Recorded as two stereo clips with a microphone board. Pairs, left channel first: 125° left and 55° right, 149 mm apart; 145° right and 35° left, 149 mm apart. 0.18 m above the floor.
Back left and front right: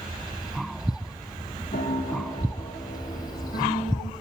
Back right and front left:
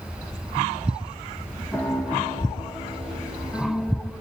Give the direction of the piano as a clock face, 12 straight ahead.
7 o'clock.